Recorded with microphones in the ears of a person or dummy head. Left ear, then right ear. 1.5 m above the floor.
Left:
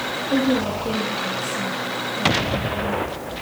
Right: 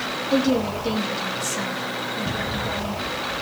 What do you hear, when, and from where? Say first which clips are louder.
0.3 s a woman speaking: even; 25° right (ahead or behind), 2.5 m